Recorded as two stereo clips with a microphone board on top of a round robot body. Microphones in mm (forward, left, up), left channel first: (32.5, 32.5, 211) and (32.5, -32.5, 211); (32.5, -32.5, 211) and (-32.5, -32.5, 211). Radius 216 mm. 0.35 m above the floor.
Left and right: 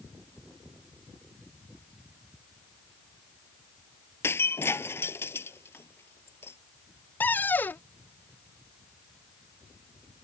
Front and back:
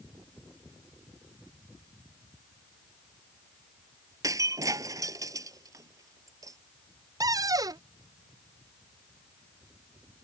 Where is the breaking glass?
145° left.